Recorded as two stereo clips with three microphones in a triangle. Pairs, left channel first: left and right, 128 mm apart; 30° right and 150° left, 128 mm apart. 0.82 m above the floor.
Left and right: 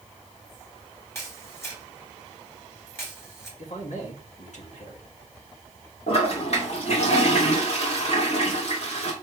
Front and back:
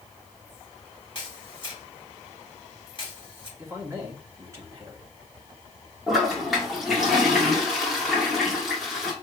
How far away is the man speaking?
About 2 m.